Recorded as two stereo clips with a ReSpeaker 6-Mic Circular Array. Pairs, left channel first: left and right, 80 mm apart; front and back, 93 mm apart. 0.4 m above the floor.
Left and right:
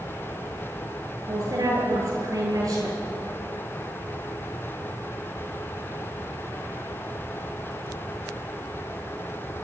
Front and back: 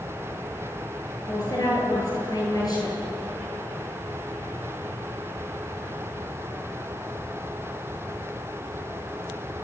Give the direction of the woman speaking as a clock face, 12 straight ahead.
2 o'clock.